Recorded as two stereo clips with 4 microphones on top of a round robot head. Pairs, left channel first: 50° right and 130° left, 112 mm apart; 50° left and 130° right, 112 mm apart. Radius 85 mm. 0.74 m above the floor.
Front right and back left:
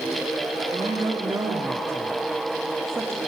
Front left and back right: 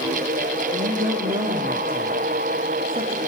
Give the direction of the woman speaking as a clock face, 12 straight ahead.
5 o'clock.